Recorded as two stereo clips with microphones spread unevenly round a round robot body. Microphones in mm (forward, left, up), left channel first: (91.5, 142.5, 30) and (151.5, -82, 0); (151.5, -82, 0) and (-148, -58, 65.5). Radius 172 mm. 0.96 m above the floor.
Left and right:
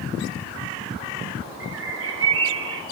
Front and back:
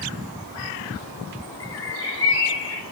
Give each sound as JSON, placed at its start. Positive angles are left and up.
{"t": 1.6, "sound": "a bird", "azimuth_deg": -50, "distance_m": 2.0}